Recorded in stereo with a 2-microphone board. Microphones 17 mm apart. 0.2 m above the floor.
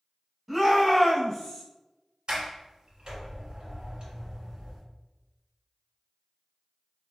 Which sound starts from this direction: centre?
A shout, at 0.5 s.